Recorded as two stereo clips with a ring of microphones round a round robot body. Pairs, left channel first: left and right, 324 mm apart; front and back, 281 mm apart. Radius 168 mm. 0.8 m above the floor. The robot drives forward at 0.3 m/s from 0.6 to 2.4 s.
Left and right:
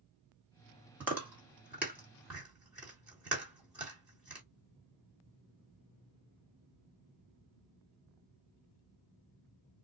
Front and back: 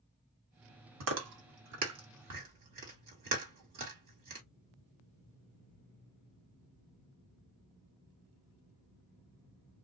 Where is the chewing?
175° right, 1.4 m.